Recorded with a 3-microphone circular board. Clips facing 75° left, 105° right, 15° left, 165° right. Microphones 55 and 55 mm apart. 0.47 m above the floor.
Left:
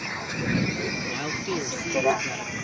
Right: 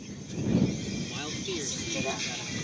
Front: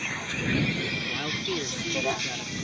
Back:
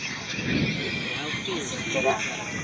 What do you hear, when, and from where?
0.0 s a vehicle: 90° left; by 2.6 s 130° left
1.1 s a man speaking: 90° left